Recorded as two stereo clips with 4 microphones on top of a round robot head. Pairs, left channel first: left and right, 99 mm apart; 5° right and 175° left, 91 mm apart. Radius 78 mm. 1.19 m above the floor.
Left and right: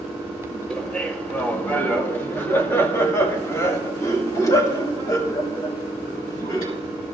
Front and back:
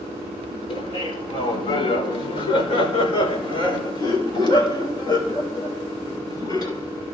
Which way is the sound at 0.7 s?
5° left.